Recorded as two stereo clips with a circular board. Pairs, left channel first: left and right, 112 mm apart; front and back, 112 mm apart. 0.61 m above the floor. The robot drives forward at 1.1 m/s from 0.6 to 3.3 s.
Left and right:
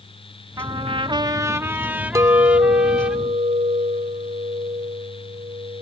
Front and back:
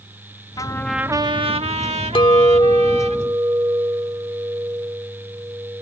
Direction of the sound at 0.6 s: 45° right.